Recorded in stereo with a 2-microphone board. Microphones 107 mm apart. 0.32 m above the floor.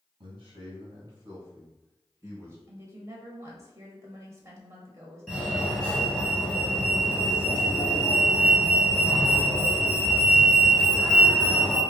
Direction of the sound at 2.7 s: 30° right (ahead or behind).